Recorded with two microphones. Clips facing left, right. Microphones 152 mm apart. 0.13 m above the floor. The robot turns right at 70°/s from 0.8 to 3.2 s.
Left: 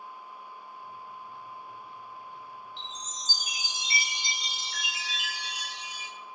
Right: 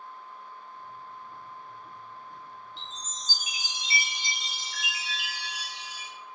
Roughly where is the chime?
Left.